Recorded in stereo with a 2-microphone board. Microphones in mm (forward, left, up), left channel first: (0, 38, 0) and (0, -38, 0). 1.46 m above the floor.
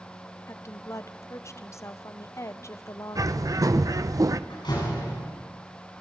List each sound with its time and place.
0.5 s a woman speaking: 40° left (ahead or behind), 0.8 m
3.1 s a bird: 50° right (ahead or behind), 0.7 m
4.5 s a door slam: 70° left (ahead or behind), 10 m